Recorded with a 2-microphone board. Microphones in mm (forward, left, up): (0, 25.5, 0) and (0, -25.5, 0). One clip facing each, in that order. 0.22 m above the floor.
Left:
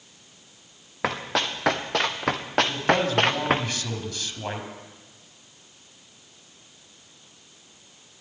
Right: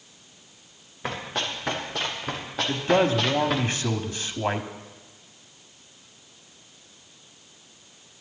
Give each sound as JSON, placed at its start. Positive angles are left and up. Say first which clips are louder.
{"t": 1.0, "sound": "running footsteps", "louder": "left 4 dB", "side_deg": 80, "distance_m": 2.0}
{"t": 2.7, "sound": "a man speaking", "louder": "right 6 dB", "side_deg": -25, "distance_m": 1.3}